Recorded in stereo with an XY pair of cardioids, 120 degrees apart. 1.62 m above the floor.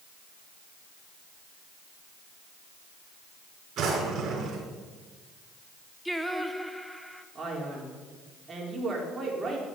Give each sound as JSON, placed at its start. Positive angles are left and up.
{"t": 3.8, "sound": "a drawer", "azimuth_deg": -50, "distance_m": 5.0}
{"t": 6.0, "sound": "singing", "azimuth_deg": 5, "distance_m": 1.1}
{"t": 7.3, "sound": "a man speaking", "azimuth_deg": -25, "distance_m": 5.0}